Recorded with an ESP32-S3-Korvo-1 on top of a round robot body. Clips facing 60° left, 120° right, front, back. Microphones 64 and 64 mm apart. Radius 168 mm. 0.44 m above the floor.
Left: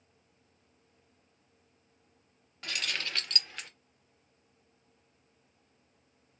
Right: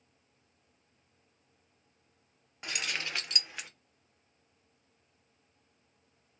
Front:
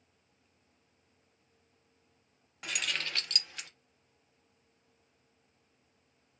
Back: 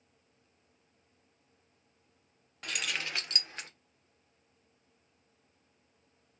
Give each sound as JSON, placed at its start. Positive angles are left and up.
{"t": 2.6, "sound": "keys jangling", "azimuth_deg": -75, "distance_m": 0.8}